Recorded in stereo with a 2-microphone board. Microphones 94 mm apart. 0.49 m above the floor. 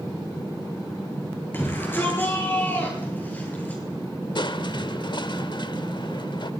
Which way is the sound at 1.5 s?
25° left (ahead or behind).